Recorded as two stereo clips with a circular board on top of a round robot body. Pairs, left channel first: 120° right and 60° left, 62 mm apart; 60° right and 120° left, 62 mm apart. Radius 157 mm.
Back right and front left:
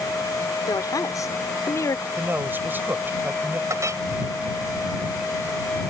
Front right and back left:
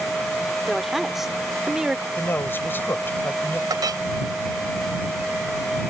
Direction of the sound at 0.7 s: 145° right.